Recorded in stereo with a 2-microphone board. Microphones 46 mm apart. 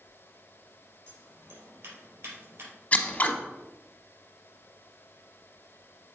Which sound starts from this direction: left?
Scissors, at 2.9 s.